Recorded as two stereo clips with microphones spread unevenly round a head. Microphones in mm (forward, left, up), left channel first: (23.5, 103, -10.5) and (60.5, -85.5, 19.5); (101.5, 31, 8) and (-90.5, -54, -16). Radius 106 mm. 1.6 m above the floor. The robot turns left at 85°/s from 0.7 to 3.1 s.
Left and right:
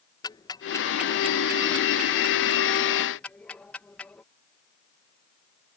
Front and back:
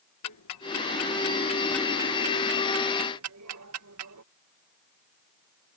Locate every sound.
0.2 s ticking: 30° left; by 4.2 s 175° right